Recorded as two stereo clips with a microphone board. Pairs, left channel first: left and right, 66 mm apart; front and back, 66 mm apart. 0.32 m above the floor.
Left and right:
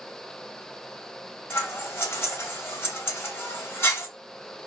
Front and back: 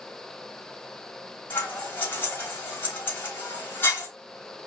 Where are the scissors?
50° left, 1.1 m.